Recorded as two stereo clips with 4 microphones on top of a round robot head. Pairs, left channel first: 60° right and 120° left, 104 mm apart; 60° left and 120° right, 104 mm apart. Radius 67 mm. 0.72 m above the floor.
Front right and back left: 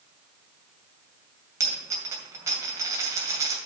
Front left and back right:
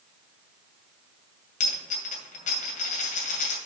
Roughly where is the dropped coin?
Ahead left.